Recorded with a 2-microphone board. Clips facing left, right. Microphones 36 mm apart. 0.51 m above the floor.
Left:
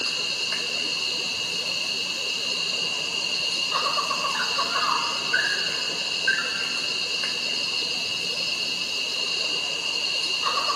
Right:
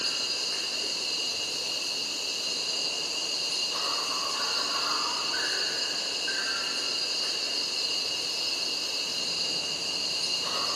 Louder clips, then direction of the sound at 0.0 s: Left 4 dB; 60° left (ahead or behind).